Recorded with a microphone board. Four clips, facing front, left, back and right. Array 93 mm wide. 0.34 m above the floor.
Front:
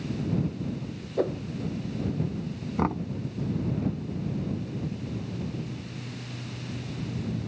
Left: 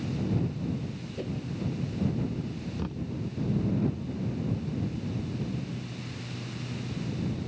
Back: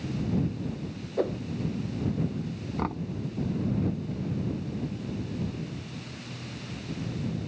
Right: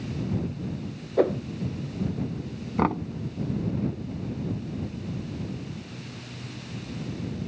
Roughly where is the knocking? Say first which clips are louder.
Right 14 dB, front 5 dB; right.